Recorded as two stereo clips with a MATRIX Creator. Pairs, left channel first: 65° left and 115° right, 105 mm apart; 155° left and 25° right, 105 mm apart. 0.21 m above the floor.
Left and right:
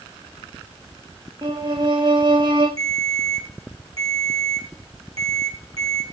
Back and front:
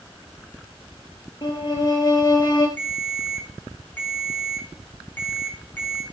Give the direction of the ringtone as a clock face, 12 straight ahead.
4 o'clock.